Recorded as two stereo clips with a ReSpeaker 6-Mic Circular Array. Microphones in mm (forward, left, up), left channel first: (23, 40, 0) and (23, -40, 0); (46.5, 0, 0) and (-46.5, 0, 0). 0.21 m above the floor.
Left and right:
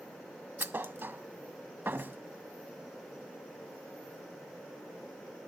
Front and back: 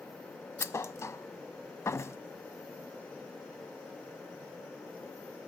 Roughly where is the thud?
Ahead right.